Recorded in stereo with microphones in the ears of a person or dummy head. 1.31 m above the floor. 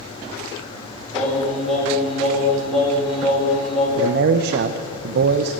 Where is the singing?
Centre (ahead or behind), 3 m.